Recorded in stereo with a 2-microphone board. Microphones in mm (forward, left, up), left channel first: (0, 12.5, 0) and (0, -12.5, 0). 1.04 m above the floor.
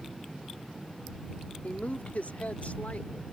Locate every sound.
1.6 s a woman speaking: 70° left (ahead or behind); by 3.4 s 75° left (ahead or behind)